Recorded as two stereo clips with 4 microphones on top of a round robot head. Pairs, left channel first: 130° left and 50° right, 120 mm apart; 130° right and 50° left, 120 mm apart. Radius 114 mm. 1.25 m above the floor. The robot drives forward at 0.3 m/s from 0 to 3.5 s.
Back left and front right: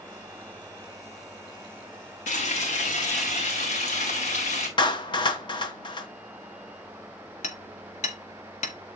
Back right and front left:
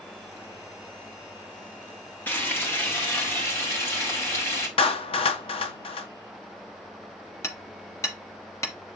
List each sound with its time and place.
2.3 s frying: 155° left, 2.5 m; by 4.7 s 160° left, 2.5 m
4.8 s a clap: 175° right, 0.8 m
7.4 s hammering: 160° left, 0.8 m